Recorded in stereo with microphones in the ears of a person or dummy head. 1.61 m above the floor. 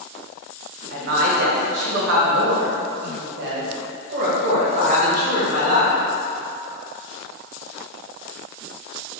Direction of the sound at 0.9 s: 45° right (ahead or behind).